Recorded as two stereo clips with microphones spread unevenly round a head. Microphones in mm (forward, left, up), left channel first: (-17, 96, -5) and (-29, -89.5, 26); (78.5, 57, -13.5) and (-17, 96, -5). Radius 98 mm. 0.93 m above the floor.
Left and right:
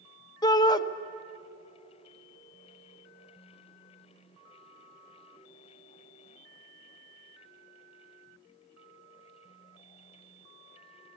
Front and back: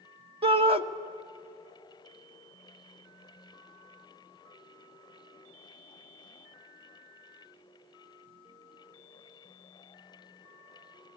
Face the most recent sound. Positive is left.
turn(degrees=145)